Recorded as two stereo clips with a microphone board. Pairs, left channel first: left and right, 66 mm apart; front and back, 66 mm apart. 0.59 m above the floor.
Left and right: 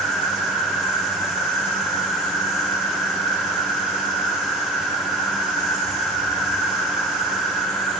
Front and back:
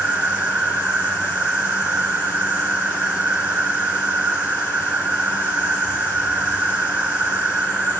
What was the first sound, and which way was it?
An insect, 120° left.